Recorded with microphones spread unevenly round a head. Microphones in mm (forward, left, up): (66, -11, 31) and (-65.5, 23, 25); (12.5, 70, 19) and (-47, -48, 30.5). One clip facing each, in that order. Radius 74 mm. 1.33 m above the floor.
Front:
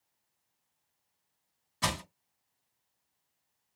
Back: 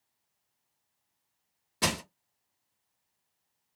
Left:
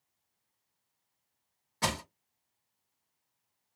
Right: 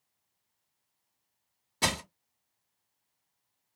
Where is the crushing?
170° right, 1.4 m.